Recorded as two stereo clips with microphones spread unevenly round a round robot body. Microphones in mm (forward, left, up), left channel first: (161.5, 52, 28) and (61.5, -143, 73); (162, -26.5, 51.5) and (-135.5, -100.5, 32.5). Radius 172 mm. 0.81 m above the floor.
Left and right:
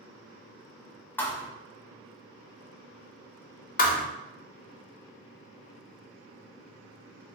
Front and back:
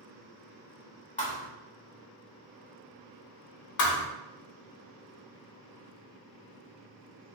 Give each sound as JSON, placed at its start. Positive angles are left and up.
{"t": 1.2, "sound": "a thud", "azimuth_deg": -30, "distance_m": 0.7}
{"t": 3.8, "sound": "a thud", "azimuth_deg": 5, "distance_m": 0.7}